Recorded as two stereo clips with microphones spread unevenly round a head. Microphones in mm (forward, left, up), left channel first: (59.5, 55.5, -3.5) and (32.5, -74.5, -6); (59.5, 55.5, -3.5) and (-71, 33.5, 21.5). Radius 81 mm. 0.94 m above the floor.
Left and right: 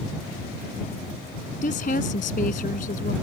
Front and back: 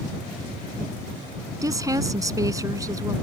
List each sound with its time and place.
1.6 s a woman speaking: 125° left